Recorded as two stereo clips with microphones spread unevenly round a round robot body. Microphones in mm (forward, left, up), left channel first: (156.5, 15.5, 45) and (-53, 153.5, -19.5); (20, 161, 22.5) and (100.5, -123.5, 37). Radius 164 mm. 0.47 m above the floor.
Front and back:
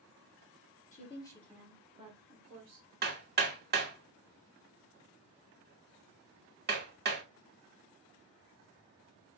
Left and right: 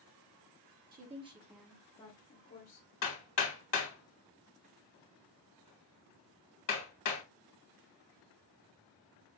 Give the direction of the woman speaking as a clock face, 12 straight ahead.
3 o'clock.